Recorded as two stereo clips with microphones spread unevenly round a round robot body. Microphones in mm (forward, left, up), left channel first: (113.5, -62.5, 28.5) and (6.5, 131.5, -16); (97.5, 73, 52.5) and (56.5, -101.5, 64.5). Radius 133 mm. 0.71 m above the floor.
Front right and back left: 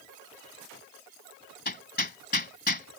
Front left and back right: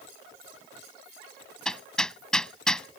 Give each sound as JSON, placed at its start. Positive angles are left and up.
{"t": 1.6, "sound": "hammering", "azimuth_deg": -10}